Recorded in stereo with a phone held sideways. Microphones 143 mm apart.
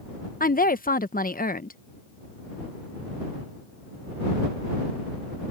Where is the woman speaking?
70° left (ahead or behind).